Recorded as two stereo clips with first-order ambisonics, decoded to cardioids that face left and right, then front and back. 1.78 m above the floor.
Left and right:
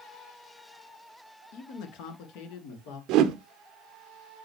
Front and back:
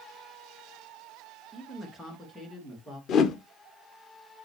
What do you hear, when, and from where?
1.5 s a man speaking: 85° left, 2 m; by 3.0 s 75° left, 3 m
3.1 s a whoosh: 50° right, 1.1 m